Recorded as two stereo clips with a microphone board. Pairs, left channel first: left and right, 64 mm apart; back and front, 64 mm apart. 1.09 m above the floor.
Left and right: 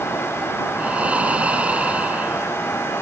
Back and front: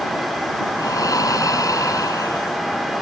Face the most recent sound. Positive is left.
turn(degrees=-160)